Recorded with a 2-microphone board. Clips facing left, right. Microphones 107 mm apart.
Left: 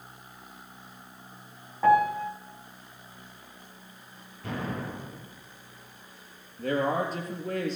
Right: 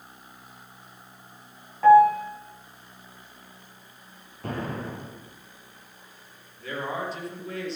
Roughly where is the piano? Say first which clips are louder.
Right 7 dB; centre.